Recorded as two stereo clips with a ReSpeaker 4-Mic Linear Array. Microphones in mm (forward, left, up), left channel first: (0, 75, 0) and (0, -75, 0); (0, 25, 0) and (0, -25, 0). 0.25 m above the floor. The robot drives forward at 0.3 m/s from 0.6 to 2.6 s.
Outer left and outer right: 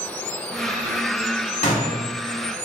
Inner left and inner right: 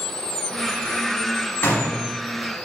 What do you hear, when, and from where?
1.6 s a gunshot: 55° left (ahead or behind), 0.8 m